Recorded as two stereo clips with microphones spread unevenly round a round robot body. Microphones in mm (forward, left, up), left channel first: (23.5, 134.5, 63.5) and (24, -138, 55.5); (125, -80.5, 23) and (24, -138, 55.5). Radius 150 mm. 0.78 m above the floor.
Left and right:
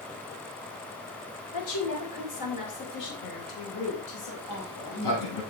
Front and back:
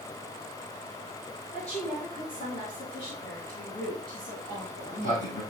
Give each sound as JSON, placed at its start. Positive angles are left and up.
{"t": 1.5, "sound": "a woman speaking", "azimuth_deg": 75, "distance_m": 3.0}
{"t": 4.4, "sound": "a sliding door", "azimuth_deg": 75, "distance_m": 4.5}